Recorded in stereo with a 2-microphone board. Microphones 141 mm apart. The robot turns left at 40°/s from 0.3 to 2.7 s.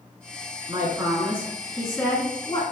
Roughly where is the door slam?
No door slam in this recording.